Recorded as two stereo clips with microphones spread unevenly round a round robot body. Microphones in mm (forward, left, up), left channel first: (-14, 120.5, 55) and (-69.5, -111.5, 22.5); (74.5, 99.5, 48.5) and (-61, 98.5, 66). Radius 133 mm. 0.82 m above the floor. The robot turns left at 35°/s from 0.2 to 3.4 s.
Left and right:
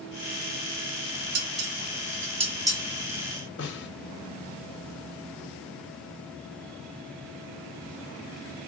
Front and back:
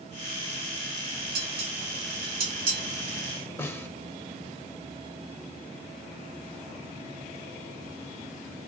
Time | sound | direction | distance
1.4 | dishes clattering | 135° right | 1.0 m
3.6 | a snare drum | 75° left | 0.6 m